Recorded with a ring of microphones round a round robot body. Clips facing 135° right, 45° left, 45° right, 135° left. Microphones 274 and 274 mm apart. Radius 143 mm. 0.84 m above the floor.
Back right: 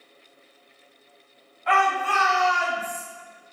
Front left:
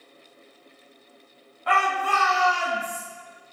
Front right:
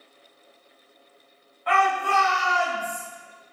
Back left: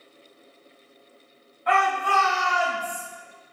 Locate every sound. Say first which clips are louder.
1.7 s a shout: back right 1 dB, even; 5° left, 1.5 m; by 3.0 s 100° left, 0.9 m